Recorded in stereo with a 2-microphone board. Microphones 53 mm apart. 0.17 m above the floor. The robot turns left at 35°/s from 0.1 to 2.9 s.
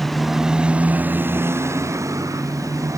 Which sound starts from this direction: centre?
A motorcycle, at 0.0 s.